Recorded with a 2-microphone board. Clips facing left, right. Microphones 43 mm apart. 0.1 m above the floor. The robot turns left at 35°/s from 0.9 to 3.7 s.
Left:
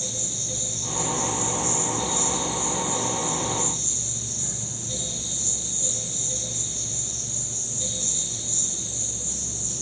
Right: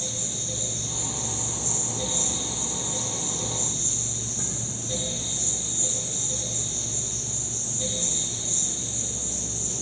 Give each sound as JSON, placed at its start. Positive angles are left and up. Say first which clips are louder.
{"t": 0.0, "sound": "an insect", "louder": "even", "azimuth_deg": -10, "distance_m": 3.0}